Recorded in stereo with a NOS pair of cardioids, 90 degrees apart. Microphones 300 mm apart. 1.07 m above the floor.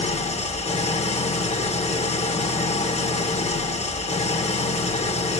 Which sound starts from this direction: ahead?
An engine running, at 0.0 s.